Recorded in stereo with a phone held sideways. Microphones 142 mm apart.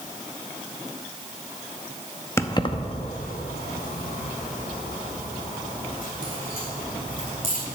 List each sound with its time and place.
2.4 s keys jangling: 20° left (ahead or behind), 0.6 m; by 7.6 s 70° left (ahead or behind), 3.5 m